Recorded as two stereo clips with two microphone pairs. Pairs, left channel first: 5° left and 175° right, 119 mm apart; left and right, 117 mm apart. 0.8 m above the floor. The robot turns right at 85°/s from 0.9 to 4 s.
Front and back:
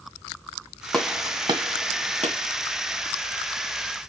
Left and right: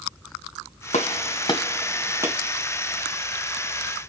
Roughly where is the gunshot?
Left.